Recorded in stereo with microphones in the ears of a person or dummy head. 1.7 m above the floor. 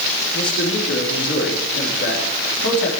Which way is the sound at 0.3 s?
70° left (ahead or behind).